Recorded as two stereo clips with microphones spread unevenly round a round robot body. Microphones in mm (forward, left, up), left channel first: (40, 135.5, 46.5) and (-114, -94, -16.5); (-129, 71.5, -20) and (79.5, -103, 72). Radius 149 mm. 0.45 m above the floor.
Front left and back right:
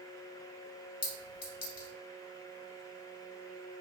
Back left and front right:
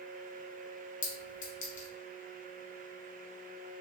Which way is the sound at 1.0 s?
95° left.